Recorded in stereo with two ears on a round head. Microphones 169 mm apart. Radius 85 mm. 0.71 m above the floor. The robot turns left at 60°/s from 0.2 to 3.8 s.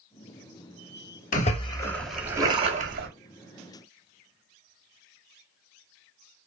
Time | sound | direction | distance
1.3 | a splash | 45° left | 0.6 m